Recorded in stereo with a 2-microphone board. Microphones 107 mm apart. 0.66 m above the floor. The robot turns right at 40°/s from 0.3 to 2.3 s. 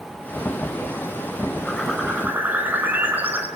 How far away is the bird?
About 4 m.